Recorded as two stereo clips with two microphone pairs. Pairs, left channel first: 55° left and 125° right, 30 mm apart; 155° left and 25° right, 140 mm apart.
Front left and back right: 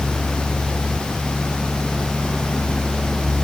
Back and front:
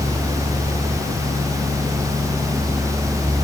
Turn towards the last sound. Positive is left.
No sound to turn to.